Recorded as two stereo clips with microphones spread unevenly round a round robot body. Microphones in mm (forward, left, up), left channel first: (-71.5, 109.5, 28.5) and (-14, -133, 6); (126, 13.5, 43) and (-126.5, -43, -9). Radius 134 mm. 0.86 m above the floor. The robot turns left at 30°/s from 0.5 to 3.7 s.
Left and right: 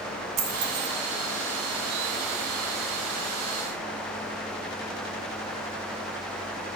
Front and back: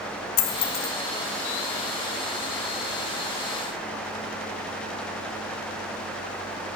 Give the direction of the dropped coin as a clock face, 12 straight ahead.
12 o'clock.